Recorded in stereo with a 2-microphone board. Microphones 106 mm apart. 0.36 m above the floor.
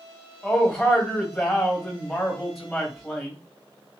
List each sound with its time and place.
0.4 s a man speaking: 5° left (ahead or behind), 1.6 m